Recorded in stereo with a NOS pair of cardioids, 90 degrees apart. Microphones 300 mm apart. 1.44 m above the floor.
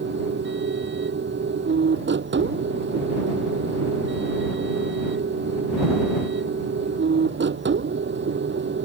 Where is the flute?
No flute in this recording.